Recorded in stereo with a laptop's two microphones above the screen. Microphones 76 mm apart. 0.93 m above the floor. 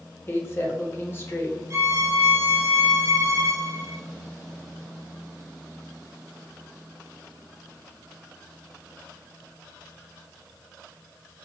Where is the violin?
35° right (ahead or behind), 0.8 m.